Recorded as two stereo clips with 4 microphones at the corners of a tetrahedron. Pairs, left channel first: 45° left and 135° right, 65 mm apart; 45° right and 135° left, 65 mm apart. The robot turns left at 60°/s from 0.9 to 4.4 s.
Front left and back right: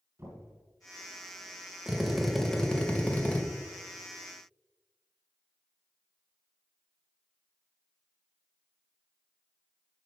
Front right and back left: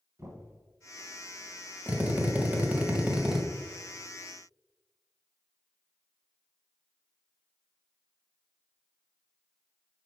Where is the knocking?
175° left, 2.5 m.